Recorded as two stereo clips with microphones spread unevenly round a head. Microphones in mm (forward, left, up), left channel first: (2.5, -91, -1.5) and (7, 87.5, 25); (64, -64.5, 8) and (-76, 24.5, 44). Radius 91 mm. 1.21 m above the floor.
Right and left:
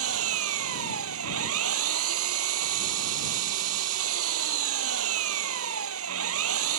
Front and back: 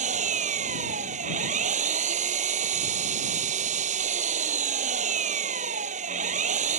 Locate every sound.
0.0 s an engine running: 95° left